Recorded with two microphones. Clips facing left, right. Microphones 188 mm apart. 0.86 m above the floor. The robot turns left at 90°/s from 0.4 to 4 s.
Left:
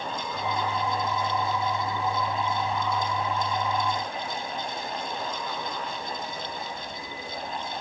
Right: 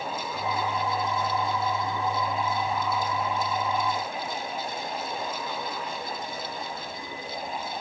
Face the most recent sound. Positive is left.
No sound to turn to.